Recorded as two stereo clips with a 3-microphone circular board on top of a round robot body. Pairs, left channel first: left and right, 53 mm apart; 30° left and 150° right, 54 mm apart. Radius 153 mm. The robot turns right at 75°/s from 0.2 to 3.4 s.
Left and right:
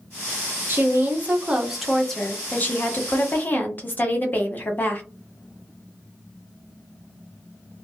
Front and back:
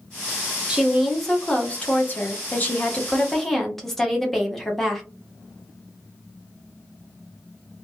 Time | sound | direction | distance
0.7 | a woman speaking | 90° right | 1.0 m